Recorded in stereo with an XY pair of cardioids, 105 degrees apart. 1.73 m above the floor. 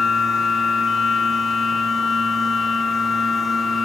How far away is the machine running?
About 0.9 m.